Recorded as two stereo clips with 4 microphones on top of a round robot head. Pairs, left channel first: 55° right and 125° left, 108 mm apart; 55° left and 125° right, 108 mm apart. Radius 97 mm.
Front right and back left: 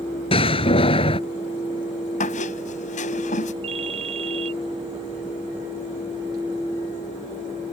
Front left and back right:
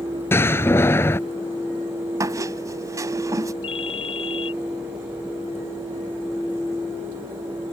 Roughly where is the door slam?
Ahead.